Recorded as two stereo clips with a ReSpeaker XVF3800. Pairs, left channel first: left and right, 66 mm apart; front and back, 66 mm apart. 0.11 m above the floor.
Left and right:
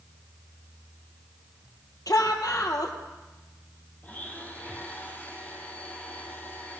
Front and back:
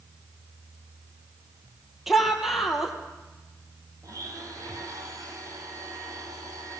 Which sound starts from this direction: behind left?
A blender, at 4.0 s.